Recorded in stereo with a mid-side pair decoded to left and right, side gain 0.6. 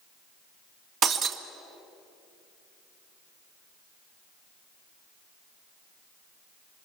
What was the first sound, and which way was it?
Breaking glass, 55° right.